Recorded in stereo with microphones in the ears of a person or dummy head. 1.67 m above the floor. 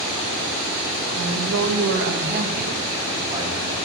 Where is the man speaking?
75° right (ahead or behind), 2 m; by 3.8 s 20° right (ahead or behind), 2.5 m.